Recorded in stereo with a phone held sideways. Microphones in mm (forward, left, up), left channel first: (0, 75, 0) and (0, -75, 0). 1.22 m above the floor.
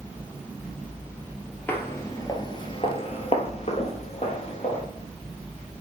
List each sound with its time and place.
1.7 s footsteps: 15° left (ahead or behind), 1.6 m; by 4.8 s 50° left (ahead or behind), 2.5 m